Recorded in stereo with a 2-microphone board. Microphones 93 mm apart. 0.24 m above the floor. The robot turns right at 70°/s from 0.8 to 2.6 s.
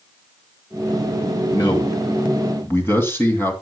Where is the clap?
No clap in this recording.